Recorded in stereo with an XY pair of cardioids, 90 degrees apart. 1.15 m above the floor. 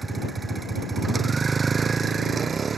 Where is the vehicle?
35° right; by 2.8 s 50° right.